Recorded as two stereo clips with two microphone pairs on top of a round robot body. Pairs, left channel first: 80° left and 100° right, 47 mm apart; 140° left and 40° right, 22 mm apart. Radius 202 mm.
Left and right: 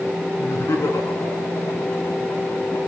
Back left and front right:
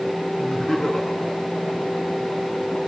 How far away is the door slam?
No door slam in this recording.